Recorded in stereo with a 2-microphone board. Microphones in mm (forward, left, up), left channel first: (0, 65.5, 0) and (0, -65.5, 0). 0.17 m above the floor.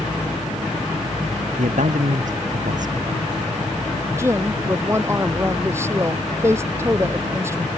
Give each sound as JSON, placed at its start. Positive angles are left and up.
{"t": 1.6, "sound": "a man speaking", "side_deg": -75}
{"t": 4.2, "sound": "a woman speaking", "side_deg": -20}